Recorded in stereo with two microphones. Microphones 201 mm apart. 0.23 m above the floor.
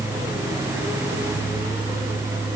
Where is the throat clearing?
I don't hear throat clearing.